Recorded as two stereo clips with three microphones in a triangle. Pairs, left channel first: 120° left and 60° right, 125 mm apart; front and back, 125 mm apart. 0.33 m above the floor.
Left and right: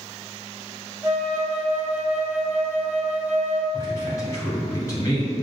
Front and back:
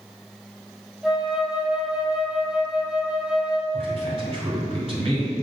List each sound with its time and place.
1.0 s a flute: 105° right, 0.6 m
3.7 s a man speaking: 175° left, 1.9 m